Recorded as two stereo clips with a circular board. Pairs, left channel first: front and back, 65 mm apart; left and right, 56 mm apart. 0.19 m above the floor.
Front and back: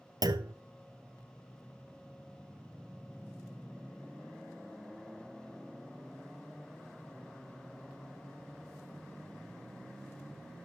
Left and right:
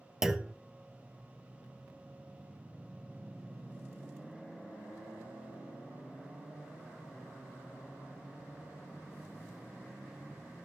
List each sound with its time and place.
0.2 s a clunk: 170° right, 0.7 m